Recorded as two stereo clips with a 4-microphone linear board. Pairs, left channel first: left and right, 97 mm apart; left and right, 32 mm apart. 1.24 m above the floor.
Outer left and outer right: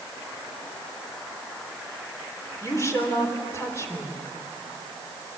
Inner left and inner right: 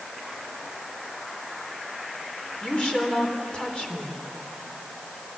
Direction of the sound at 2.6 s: 30° left (ahead or behind).